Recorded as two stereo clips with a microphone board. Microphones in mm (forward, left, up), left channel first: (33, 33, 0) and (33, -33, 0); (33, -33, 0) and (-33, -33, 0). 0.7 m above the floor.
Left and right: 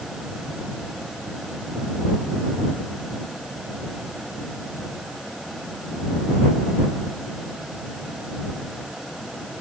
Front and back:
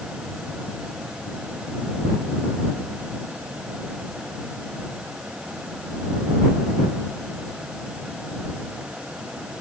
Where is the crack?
No crack in this recording.